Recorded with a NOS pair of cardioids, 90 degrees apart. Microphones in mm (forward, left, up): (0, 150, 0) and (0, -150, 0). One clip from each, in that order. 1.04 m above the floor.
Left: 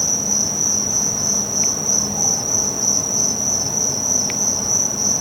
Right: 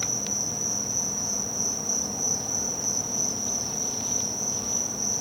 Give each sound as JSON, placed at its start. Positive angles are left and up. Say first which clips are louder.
{"t": 0.0, "sound": "an insect", "louder": "left 9 dB", "azimuth_deg": 55, "distance_m": 1.1}